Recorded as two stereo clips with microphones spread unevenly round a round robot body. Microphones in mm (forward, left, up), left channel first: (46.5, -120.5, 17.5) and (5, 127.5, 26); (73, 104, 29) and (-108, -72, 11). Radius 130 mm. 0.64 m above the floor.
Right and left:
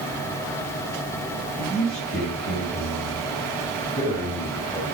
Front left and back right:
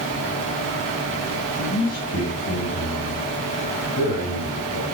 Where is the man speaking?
20° left, 4.5 m; by 4.8 s 5° right, 3 m.